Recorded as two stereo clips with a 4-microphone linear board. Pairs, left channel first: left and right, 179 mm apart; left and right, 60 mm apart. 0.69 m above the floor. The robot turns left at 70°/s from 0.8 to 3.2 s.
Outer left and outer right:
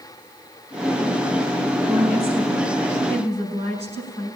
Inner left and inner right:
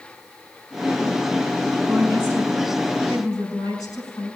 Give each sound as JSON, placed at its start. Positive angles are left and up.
{"t": 1.9, "sound": "a woman speaking", "azimuth_deg": -165, "distance_m": 6.0}